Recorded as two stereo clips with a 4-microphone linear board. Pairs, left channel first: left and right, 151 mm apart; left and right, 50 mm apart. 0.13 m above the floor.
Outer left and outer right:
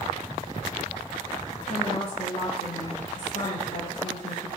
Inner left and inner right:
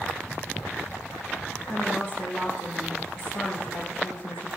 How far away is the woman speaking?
About 5.5 m.